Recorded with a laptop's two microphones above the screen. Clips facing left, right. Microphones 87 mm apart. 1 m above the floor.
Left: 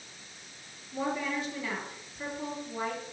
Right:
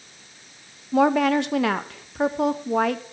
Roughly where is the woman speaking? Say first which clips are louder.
Right 14 dB; right.